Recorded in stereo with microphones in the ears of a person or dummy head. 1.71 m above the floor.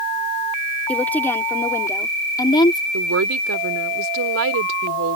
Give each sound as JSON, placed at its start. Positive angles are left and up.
{"t": 0.9, "sound": "a woman speaking", "side_deg": 10}
{"t": 2.9, "sound": "a woman speaking", "side_deg": -70}